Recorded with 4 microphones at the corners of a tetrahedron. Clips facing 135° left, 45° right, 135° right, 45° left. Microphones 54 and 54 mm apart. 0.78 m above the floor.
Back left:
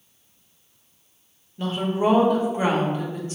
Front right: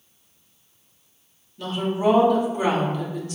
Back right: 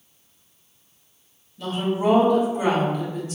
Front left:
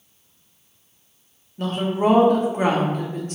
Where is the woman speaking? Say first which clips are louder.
Back left 1 dB, front left 2 dB; 80° left, 0.9 m.